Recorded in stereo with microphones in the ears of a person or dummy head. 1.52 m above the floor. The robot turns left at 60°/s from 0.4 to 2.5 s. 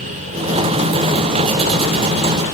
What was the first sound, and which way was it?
Only background noise.